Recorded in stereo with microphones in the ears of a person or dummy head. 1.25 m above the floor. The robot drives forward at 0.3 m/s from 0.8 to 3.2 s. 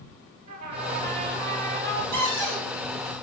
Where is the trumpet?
50° right (ahead or behind), 3 m; by 2.0 s 55° right (ahead or behind), 3 m.